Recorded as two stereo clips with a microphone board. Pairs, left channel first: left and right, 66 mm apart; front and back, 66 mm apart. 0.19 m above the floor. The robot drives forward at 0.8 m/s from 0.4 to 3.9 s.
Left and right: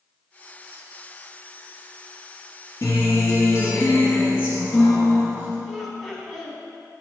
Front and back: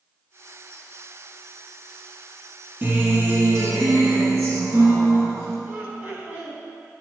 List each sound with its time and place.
2.8 s a guitar: 130° left, 1.6 m; by 5.6 s 150° left, 2 m
5.7 s laughter: 175° left, 1.2 m